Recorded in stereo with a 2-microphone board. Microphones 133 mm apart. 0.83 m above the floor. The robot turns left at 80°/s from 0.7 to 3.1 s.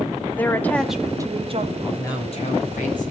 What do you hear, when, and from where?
0.3 s a woman speaking: 15° left, 1.3 m; by 1.7 s 65° right, 1.3 m
1.8 s a man speaking: 175° left, 5 m; by 3.1 s 70° left, 5 m